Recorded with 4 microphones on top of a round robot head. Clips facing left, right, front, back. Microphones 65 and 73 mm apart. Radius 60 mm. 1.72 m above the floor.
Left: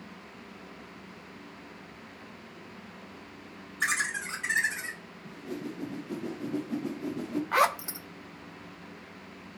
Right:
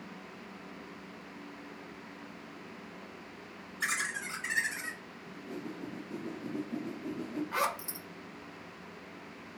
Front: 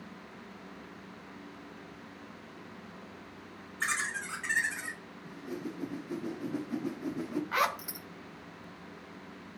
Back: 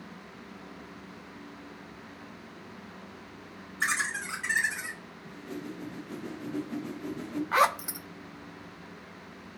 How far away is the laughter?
About 3 m.